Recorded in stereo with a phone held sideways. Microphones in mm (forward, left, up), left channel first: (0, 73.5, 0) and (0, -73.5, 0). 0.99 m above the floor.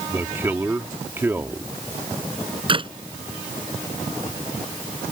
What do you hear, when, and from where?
0.1 s a man speaking: 15° right (ahead or behind)
2.7 s a clap: 35° right (ahead or behind)